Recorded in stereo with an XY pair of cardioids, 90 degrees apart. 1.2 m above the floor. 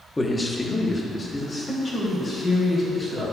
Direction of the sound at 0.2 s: 15° left.